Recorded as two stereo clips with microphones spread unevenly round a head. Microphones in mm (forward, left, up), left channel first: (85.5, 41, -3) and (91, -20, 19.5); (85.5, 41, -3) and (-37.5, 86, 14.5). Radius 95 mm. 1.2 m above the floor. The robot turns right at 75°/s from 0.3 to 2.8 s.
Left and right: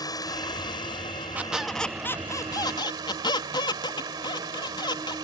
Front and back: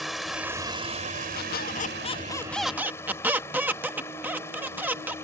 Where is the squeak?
25° right; by 5.2 s 85° left.